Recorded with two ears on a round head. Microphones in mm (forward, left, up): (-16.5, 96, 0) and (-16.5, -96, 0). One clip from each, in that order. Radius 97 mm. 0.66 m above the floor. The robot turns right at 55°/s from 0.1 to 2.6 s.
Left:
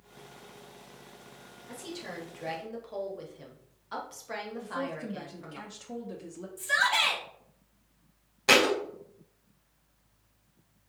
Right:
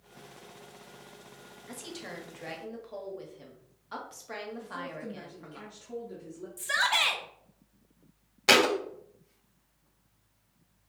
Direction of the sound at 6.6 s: 20° right (ahead or behind).